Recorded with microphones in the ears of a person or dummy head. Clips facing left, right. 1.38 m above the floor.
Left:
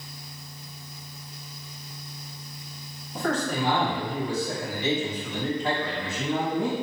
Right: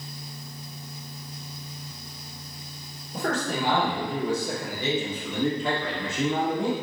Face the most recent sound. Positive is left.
turn(degrees=-90)